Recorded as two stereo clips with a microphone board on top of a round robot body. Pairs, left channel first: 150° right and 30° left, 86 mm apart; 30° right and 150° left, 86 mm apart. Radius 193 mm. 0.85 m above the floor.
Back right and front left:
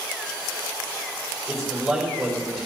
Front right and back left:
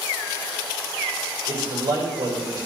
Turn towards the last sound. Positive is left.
turn(degrees=120)